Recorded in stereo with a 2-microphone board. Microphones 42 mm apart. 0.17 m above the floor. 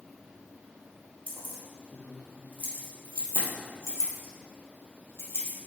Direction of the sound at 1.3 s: 45° left (ahead or behind).